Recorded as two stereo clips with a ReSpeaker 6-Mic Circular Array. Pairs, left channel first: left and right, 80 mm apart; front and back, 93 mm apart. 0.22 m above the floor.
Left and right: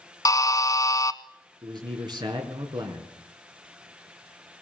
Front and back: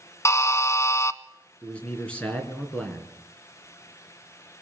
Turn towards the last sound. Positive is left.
turn(degrees=-75)